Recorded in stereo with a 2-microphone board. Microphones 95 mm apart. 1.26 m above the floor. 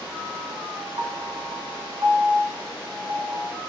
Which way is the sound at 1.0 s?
45° right (ahead or behind).